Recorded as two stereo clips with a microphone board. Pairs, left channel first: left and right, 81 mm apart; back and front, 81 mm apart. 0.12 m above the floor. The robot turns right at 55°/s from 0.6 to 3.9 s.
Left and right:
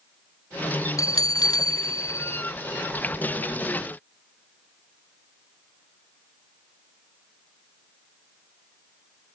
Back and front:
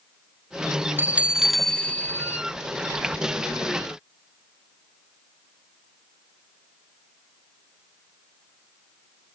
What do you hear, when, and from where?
1.0 s a bell: 60° left, 0.5 m; by 2.4 s 135° left, 0.5 m